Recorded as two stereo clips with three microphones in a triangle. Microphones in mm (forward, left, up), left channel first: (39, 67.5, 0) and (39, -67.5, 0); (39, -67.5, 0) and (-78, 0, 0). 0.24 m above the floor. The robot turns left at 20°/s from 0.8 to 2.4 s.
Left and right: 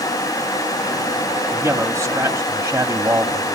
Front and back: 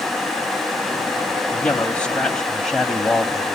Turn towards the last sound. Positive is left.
turn(degrees=-105)